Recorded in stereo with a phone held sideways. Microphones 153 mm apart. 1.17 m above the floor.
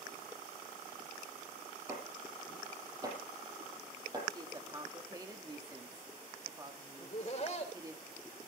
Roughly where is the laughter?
Left.